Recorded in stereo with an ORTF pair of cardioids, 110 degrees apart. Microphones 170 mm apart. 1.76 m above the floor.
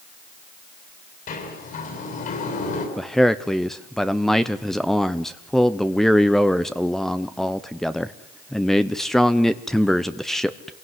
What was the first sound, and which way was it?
A sliding door, 55° left.